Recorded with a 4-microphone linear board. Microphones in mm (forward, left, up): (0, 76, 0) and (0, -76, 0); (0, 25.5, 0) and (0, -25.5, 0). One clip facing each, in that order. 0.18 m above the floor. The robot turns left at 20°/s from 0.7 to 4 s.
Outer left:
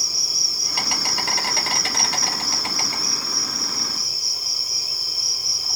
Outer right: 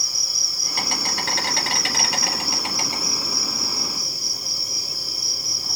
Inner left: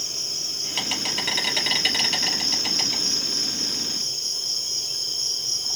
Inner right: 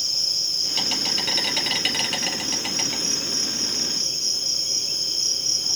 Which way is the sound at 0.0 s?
20° left.